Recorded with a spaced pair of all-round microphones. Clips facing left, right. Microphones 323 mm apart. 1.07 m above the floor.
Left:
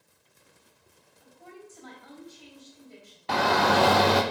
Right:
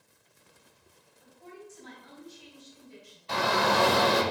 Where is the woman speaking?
60° left (ahead or behind), 2.5 m.